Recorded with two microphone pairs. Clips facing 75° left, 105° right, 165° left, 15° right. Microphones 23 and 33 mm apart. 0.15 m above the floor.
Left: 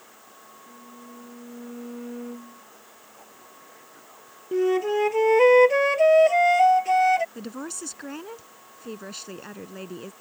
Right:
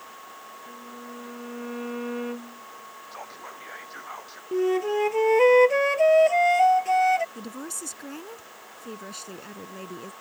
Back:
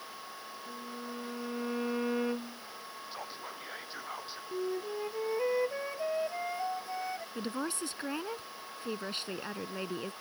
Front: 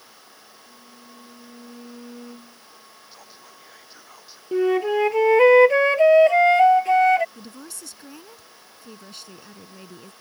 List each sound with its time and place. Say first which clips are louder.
0.7 s a violin: right 3 dB, back 7 dB; 150° right
3.1 s whispering: right 11 dB, back 6 dB; 130° right
4.5 s a flute: left 1 dB, front 16 dB; 10° right
7.3 s a woman speaking: left 1 dB, back 6 dB; 140° left